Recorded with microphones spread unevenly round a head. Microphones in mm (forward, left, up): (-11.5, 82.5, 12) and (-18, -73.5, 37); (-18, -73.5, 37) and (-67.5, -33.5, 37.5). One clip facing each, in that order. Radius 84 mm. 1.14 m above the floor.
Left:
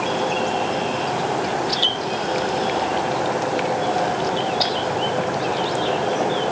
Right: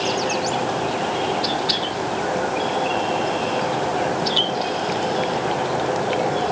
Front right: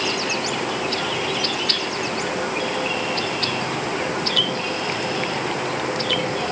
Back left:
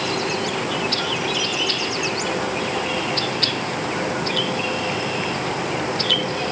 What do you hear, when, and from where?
Only background noise.